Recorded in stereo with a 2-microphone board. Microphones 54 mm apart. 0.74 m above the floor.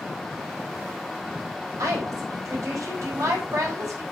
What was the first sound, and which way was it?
A woman speaking, 75° right (ahead or behind).